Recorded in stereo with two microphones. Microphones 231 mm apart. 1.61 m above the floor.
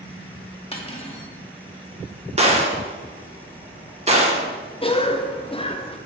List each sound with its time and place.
0.7 s cutlery clinking: 25° left (ahead or behind), 1.4 m
2.4 s a gunshot: 30° right (ahead or behind), 1.5 m
4.8 s a cough: 25° left (ahead or behind), 0.6 m